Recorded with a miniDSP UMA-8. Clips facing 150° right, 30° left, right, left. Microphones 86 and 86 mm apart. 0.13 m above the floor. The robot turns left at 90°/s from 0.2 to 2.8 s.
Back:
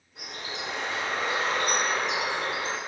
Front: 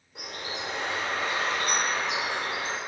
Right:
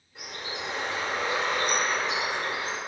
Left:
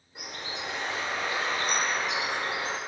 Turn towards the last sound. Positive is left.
turn(degrees=140)